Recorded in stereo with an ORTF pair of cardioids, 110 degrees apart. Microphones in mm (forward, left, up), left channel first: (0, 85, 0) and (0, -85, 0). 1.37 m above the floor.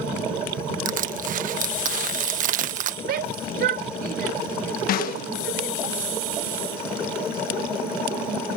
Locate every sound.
0.8 s crushing: 55° right
3.0 s a shout: 70° right
4.9 s a snare drum: 65° left